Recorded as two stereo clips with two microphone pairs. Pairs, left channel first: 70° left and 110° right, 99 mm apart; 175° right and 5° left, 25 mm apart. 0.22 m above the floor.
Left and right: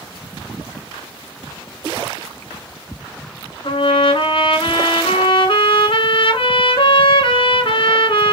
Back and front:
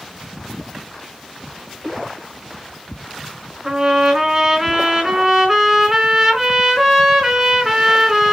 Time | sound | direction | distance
3.6 | a trumpet | 70° left | 2.5 m